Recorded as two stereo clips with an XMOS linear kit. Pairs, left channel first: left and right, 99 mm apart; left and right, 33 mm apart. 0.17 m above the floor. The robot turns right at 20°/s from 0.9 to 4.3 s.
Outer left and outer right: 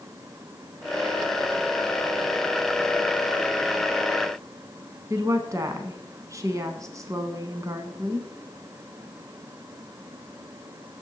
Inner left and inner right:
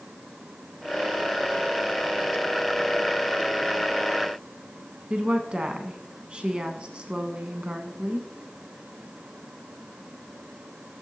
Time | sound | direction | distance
5.1 | a woman speaking | 35° right (ahead or behind) | 1.1 m